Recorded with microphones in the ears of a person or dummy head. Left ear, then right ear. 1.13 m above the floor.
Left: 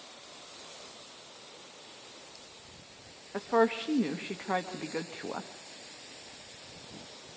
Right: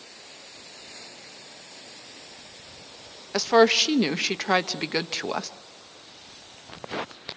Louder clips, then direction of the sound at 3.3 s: Right 9 dB; 75° right (ahead or behind).